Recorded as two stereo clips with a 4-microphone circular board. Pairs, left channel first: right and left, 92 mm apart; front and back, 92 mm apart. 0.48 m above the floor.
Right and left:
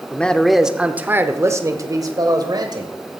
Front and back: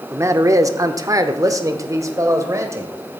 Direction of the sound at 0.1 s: 150° right.